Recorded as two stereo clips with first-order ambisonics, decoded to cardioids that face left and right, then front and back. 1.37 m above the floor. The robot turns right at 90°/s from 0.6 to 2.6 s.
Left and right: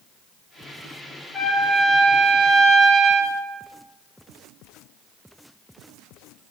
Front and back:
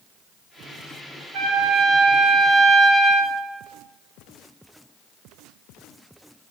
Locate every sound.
1.3 s a trumpet: 165° left, 4.5 m; by 3.3 s 80° right, 4.5 m